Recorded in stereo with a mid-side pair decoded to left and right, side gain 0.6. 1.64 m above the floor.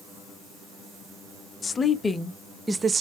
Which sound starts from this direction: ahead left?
A woman speaking, at 1.6 s.